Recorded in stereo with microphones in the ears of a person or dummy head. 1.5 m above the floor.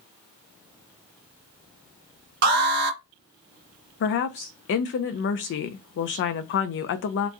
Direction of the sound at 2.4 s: 50° right (ahead or behind).